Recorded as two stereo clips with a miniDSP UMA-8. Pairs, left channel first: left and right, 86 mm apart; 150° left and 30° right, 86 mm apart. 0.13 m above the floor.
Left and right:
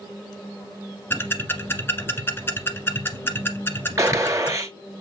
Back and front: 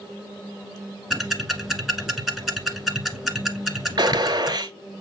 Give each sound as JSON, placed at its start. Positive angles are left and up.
{"t": 1.1, "sound": "ticking", "azimuth_deg": 65, "distance_m": 1.5}
{"t": 4.0, "sound": "a gunshot", "azimuth_deg": -45, "distance_m": 0.7}